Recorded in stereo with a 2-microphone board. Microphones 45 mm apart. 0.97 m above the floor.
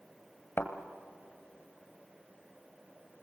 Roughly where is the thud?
Left.